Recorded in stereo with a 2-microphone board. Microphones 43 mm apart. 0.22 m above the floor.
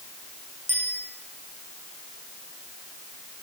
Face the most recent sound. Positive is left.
turn(degrees=-85)